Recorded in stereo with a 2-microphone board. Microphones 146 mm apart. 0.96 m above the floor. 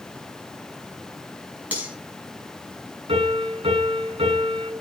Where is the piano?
45° right (ahead or behind), 8 m.